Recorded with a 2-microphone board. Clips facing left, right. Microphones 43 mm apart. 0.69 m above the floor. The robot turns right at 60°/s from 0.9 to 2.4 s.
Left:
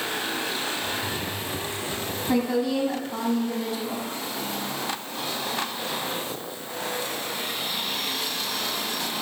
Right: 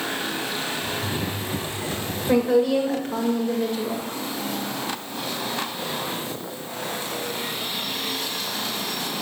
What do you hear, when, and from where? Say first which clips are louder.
2.3 s a woman speaking: right 5 dB; 40° right (ahead or behind), 2.0 m; by 4.0 s 45° right (ahead or behind), 2.0 m